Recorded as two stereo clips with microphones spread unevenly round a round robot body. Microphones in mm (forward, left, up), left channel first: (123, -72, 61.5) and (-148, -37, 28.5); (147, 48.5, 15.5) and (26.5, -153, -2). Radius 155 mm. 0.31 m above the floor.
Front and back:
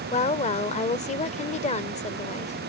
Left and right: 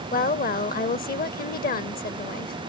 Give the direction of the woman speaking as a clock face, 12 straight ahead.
10 o'clock.